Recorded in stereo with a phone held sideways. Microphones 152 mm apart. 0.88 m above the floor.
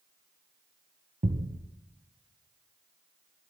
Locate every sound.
1.2 s a thud: 55° right (ahead or behind), 1.9 m